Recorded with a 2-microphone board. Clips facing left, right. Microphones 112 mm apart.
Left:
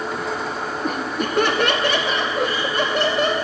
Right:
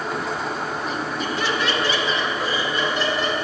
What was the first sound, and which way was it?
Laughter, 50° left (ahead or behind).